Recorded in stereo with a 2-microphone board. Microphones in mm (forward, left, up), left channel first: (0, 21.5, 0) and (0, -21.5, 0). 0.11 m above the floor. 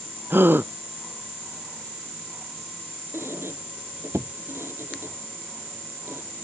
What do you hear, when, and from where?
0.3 s a gasp: 60° right (ahead or behind)
3.1 s a squeak: 85° right